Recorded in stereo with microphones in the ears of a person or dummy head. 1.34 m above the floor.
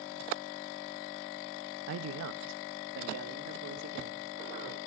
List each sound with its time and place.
1.9 s a man speaking: 70° right (ahead or behind), 0.8 m; by 4.8 s 60° right (ahead or behind), 4 m